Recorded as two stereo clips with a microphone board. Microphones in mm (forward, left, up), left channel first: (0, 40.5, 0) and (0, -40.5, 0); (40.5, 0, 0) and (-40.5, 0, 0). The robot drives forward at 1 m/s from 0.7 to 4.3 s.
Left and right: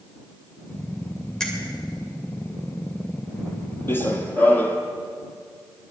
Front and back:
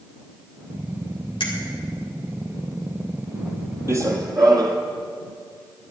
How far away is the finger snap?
About 2.5 m.